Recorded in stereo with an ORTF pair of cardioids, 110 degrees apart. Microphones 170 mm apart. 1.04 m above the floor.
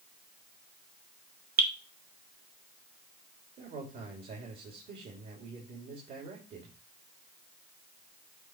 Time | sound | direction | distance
1.6 | dripping | 60° right | 1.7 m
3.6 | a man speaking | 60° right | 3 m